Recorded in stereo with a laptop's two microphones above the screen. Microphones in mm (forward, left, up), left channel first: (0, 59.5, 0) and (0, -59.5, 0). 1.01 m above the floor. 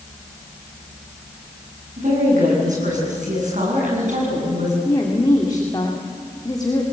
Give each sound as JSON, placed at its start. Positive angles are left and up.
{"t": 2.0, "sound": "a woman speaking", "side_deg": -90, "distance_m": 8.5}
{"t": 4.8, "sound": "a woman speaking", "side_deg": 35, "distance_m": 2.0}